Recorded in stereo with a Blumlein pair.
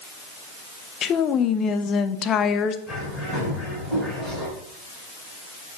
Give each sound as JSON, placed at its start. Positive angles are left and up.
{"t": 1.0, "sound": "a woman speaking", "azimuth_deg": 30, "distance_m": 0.8}
{"t": 2.9, "sound": "a bird", "azimuth_deg": 10, "distance_m": 5.5}